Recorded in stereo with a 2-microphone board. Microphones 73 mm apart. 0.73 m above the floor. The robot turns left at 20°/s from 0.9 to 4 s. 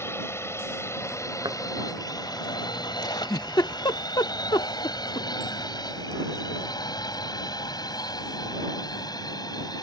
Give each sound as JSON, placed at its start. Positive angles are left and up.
{"t": 0.0, "sound": "a drone", "side_deg": 35}
{"t": 1.4, "sound": "a thud", "side_deg": -75}
{"t": 3.0, "sound": "a giggle", "side_deg": 60}